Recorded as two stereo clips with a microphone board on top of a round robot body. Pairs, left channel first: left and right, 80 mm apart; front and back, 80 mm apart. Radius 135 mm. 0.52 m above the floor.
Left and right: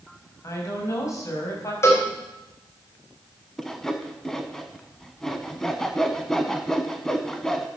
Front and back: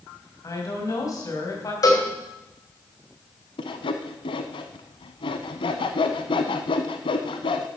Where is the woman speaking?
45° left, 4.5 m.